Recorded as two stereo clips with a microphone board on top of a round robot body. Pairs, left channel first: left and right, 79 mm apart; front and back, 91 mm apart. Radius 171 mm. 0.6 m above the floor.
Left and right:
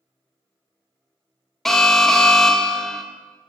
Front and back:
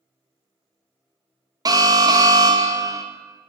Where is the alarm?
175° left, 1.0 m.